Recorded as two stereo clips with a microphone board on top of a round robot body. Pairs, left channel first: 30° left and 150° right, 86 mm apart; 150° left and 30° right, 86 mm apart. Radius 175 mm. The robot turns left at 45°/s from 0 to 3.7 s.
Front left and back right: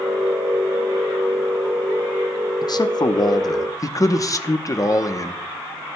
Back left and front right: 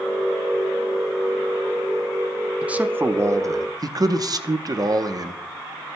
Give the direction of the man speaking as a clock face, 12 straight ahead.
11 o'clock.